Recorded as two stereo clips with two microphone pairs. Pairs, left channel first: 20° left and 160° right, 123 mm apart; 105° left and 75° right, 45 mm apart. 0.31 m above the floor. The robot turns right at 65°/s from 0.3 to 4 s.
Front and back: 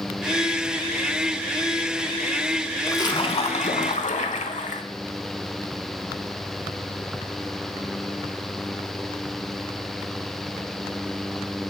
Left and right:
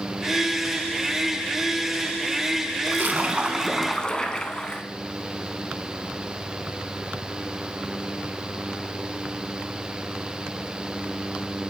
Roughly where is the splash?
Ahead right.